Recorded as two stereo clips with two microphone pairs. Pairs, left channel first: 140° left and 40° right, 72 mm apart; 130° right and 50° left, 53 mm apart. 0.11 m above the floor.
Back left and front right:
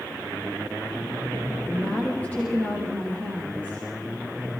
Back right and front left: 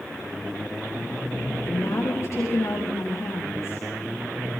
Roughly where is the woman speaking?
Behind right.